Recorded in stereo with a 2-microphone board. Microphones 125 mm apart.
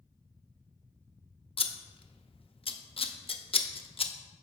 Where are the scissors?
50° left (ahead or behind), 0.5 m.